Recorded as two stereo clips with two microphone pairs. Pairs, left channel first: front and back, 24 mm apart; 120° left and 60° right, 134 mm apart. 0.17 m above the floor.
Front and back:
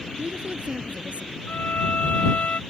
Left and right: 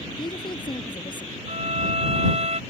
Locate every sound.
0.2 s a woman speaking: 170° left
1.5 s a violin: 20° right